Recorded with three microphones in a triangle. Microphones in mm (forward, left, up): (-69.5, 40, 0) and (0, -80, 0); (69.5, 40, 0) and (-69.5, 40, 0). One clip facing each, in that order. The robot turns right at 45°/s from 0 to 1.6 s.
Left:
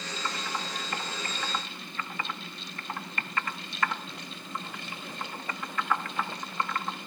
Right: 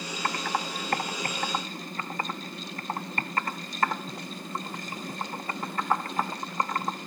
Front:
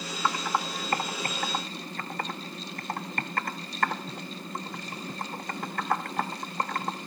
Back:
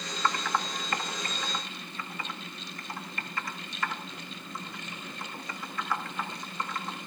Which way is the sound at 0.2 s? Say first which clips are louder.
Right 6 dB, front 1 dB; 75° right.